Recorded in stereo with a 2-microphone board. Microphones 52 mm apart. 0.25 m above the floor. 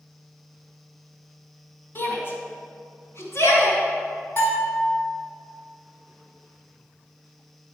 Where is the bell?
40° left (ahead or behind), 3 m.